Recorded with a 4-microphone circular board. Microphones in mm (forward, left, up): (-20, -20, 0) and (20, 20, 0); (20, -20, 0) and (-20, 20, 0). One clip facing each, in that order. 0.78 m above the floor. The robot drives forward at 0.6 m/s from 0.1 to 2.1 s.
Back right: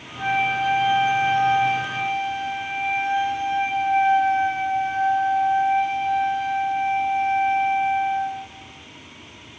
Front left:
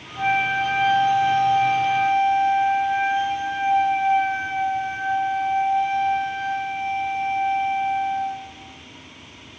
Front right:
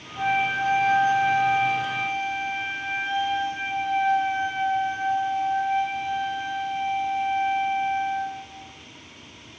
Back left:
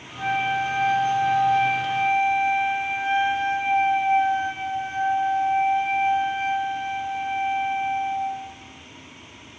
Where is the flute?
25° right, 0.8 m; by 8.5 s 150° right, 0.7 m.